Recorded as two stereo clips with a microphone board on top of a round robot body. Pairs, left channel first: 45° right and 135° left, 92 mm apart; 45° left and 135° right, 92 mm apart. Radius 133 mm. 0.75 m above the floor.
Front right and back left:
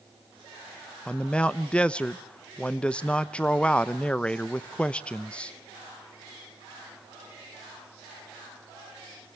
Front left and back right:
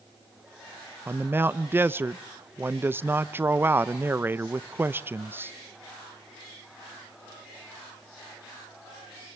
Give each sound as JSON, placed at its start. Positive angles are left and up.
{"t": 1.1, "sound": "a man speaking", "azimuth_deg": -110, "distance_m": 0.8}